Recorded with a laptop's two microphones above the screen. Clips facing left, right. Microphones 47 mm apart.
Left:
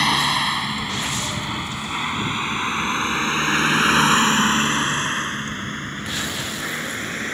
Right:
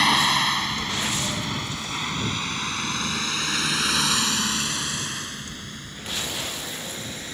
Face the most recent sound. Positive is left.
turn(degrees=50)  # may be behind; listen again after turning